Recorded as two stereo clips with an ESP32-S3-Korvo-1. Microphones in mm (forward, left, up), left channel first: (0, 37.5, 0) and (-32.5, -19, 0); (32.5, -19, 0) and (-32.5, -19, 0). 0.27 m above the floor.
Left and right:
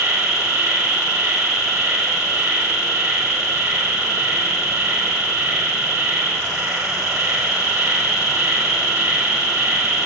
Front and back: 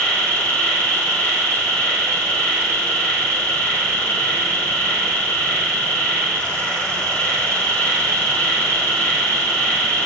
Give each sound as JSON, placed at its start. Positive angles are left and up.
{"t": 0.0, "sound": "an insect", "azimuth_deg": -45, "distance_m": 2.0}